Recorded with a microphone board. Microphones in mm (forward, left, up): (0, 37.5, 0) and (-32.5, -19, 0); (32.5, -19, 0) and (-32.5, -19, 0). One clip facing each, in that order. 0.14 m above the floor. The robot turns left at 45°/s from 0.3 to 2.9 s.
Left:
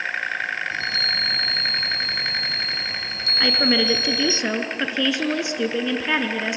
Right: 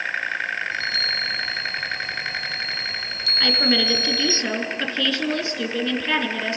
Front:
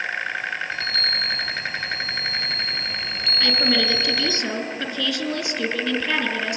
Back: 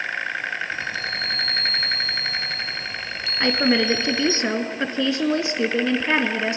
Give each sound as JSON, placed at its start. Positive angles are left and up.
{"t": 0.7, "sound": "a chime", "azimuth_deg": 115, "distance_m": 0.6}
{"t": 3.4, "sound": "a woman speaking", "azimuth_deg": 130, "distance_m": 1.6}